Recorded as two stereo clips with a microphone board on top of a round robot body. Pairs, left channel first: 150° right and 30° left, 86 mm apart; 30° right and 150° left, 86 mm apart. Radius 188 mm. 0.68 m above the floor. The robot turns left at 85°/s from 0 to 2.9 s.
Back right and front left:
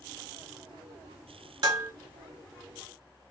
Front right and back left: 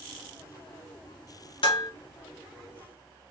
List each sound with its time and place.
1.6 s dishes clattering: 15° right, 1.5 m; by 1.9 s 40° right, 1.5 m